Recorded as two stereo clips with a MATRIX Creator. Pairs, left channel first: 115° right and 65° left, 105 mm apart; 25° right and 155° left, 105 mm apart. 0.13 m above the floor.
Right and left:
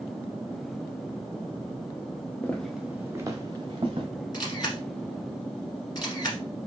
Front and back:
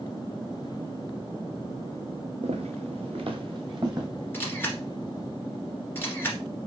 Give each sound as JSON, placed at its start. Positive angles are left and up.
{"t": 2.4, "sound": "footsteps", "azimuth_deg": 175, "distance_m": 1.0}
{"t": 4.3, "sound": "a camera shutter", "azimuth_deg": -85, "distance_m": 1.6}